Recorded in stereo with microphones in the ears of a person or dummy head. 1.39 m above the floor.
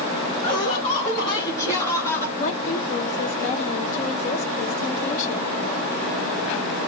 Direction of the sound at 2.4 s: 40° left (ahead or behind).